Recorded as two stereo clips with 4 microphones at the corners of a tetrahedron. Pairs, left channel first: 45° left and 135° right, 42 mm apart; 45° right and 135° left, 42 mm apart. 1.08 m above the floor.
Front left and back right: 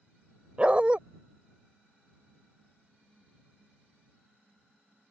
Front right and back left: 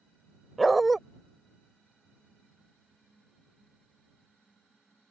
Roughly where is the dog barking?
Behind right.